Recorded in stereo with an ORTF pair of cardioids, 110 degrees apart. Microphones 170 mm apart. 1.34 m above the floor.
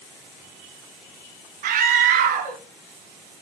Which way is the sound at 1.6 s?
60° right.